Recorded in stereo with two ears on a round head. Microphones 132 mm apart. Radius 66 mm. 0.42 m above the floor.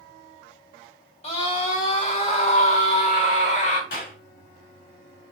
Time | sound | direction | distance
1.2 | a scream | 45° left (ahead or behind) | 3 m
3.9 | a clap | 65° left (ahead or behind) | 5.5 m